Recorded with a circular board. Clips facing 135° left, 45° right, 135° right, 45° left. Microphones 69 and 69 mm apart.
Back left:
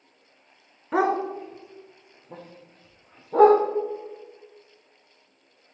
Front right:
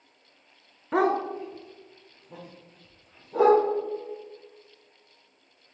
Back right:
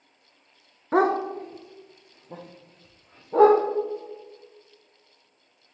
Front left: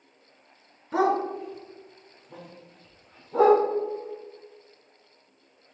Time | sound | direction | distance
0.9 | a dog barking | 135° right | 0.7 m